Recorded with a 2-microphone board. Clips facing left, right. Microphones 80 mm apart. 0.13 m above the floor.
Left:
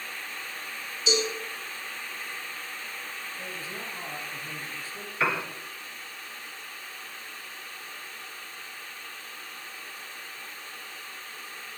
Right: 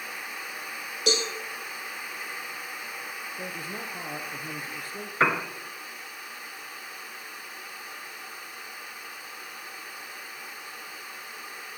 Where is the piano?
40° right (ahead or behind), 1.4 m.